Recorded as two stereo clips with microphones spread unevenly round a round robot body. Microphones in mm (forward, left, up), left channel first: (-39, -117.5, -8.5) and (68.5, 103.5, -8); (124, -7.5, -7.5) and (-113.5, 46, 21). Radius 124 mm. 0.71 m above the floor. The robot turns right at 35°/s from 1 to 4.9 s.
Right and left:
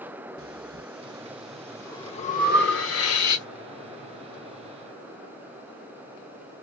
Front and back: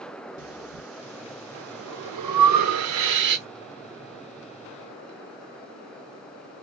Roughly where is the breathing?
Behind left.